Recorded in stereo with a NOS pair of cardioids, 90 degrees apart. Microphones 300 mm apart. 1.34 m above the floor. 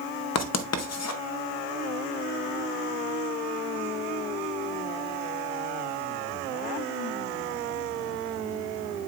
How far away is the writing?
About 0.8 m.